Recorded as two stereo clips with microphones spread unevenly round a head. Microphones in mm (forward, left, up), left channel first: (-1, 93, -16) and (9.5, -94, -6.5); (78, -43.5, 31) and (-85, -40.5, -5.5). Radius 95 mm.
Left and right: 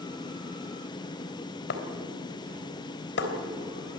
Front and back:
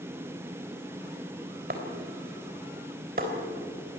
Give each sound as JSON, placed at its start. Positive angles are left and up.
{"t": 1.7, "sound": "breaking glass", "azimuth_deg": 130, "distance_m": 3.5}